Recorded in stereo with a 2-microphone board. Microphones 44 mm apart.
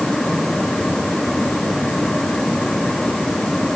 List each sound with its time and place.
Only background noise.